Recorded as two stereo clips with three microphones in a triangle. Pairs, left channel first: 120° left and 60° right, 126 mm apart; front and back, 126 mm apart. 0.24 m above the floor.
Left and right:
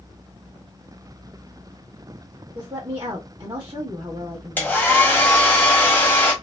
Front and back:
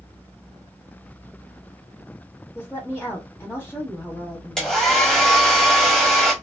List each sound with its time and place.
2.5 s a woman speaking: 65° right, 1.2 m
4.6 s a hair dryer: 80° left, 1.2 m